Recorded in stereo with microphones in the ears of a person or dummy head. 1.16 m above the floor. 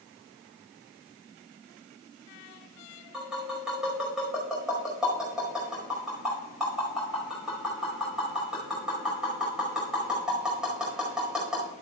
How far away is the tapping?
About 5 m.